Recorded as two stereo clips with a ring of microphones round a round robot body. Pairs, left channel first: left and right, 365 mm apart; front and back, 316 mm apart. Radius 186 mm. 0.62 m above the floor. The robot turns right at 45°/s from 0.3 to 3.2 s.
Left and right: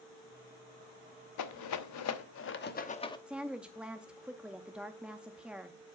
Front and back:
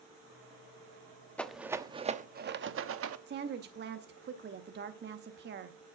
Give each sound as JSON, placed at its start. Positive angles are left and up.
{"t": 1.4, "sound": "a rattle", "azimuth_deg": 85, "distance_m": 1.0}
{"t": 3.3, "sound": "a woman speaking", "azimuth_deg": -175, "distance_m": 0.7}